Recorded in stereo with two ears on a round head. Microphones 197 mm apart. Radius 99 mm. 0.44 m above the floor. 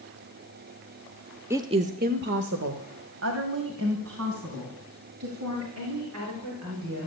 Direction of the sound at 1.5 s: 10° right (ahead or behind).